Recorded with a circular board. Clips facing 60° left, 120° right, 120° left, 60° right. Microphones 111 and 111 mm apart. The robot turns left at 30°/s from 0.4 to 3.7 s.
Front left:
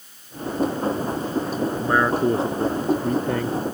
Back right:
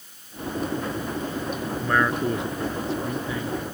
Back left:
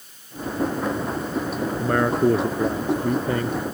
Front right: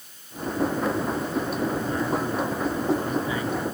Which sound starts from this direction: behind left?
A man speaking, at 1.8 s.